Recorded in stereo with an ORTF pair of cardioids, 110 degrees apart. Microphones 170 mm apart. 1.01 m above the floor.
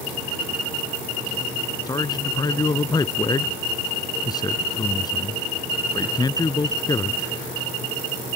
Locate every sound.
1.9 s a man speaking: 20° left